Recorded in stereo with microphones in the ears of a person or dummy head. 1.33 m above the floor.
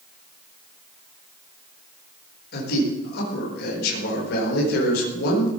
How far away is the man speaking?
About 4.5 m.